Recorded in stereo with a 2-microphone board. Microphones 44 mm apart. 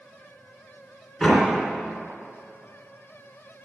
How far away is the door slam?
About 3 m.